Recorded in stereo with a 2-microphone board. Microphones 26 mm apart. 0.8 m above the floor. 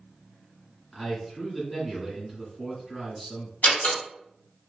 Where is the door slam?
70° left (ahead or behind), 1.5 m.